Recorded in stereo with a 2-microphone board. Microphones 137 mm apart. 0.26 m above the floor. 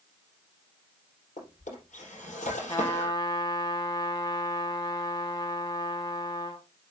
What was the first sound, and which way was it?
A drawer, 65° left (ahead or behind).